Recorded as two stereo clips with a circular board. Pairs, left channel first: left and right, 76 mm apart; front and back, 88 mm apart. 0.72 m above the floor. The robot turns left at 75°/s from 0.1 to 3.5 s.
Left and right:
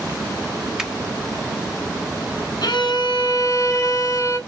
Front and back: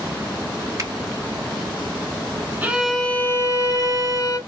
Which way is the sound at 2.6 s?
115° left.